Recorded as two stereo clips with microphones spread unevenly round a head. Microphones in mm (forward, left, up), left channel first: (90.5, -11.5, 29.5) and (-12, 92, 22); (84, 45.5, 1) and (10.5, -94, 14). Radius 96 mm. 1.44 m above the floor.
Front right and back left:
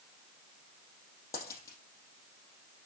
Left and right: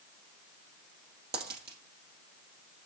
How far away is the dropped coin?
About 3.5 m.